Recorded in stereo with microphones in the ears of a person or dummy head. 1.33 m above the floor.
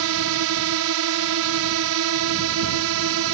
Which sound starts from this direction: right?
A drone, at 0.0 s.